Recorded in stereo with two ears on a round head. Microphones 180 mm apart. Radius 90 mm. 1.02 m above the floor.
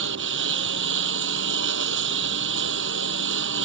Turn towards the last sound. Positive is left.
turn(degrees=-60)  # may be behind; listen again after turning